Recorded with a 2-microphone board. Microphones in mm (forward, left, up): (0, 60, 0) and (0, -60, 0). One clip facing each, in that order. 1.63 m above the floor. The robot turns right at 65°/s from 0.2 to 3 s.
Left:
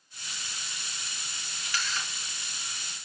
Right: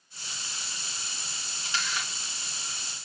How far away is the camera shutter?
About 2.5 m.